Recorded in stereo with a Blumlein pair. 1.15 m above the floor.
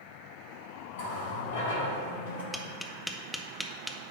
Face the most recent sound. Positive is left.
turn(degrees=0)